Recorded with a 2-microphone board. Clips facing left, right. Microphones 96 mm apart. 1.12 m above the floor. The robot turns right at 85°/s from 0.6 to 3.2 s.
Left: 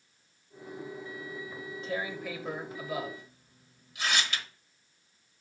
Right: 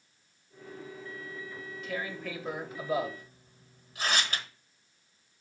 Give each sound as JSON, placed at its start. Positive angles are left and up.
{"t": 1.5, "sound": "tearing paper", "side_deg": 40, "distance_m": 1.1}